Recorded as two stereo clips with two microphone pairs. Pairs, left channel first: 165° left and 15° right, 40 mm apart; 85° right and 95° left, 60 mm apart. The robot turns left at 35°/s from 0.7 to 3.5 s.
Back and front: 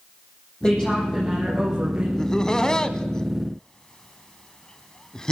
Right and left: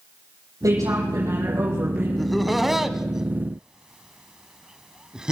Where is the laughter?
165° right, 1.2 m; by 5.3 s 145° left, 1.2 m.